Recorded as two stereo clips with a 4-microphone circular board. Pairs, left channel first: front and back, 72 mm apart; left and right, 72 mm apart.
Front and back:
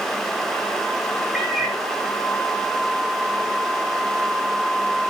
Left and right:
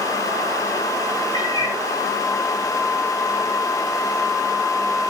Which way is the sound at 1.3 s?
95° left.